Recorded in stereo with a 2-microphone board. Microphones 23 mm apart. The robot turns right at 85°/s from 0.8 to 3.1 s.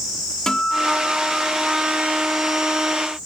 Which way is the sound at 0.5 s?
150° left.